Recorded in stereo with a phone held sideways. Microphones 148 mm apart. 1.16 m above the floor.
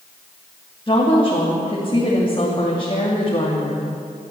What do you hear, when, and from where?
0.9 s a woman speaking: 35° left (ahead or behind), 3 m